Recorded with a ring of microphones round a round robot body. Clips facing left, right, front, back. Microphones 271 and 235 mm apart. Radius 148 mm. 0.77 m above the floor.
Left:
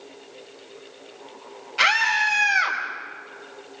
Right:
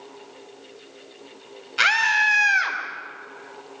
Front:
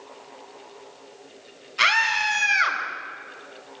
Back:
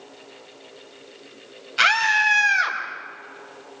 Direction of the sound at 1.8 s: 155° right.